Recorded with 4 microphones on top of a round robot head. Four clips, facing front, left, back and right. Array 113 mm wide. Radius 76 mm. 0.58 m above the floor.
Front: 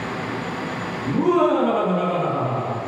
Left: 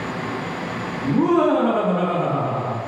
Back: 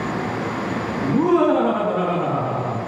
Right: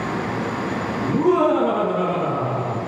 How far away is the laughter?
About 1.4 m.